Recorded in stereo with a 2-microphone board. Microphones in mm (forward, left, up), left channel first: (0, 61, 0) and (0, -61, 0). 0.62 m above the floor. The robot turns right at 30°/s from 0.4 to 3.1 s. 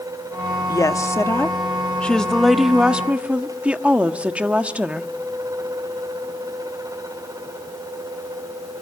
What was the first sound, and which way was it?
A woman speaking, 125° left.